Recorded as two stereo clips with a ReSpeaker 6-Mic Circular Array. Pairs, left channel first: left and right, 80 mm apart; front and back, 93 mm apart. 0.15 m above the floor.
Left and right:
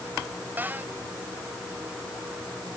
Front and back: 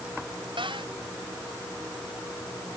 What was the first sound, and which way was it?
A cupboard door, 155° right.